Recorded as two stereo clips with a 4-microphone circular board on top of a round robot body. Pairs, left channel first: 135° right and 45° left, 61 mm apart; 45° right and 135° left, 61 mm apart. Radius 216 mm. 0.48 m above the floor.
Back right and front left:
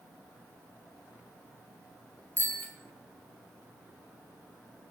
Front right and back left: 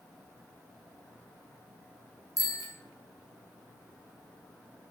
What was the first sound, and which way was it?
A bicycle bell, 75° right.